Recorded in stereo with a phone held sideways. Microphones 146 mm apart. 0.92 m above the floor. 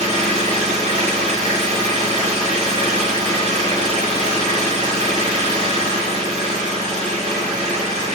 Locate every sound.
0.0 s an engine running: 50° right (ahead or behind), 9 m